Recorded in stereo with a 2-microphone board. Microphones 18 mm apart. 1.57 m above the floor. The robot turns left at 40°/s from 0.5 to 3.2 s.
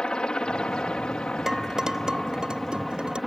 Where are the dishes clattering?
25° right (ahead or behind); by 3.2 s 80° right.